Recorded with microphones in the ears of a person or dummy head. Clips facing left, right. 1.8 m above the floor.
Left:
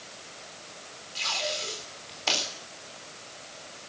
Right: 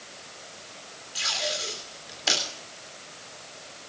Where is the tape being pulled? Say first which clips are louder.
Right 1 dB; 15° right (ahead or behind), 3.5 m.